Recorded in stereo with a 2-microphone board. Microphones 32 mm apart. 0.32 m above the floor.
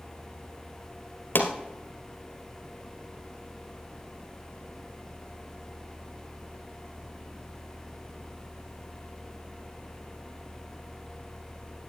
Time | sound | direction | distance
1.4 | a pop | 80° left | 1.9 m